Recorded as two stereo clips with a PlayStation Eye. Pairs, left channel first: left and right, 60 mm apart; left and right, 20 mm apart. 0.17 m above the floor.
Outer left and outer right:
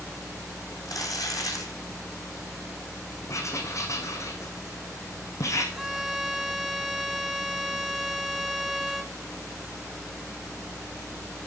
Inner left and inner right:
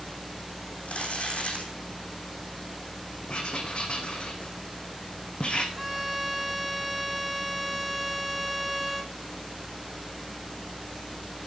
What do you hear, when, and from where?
0.8 s crumpling: 70° left (ahead or behind), 4 m
3.3 s writing: 55° left (ahead or behind), 2.5 m
5.7 s a violin: 10° right (ahead or behind), 1.1 m